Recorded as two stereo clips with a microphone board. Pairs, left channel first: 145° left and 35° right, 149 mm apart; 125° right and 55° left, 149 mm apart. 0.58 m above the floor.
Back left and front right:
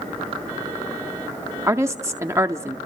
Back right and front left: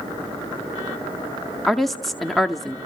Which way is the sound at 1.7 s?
40° right.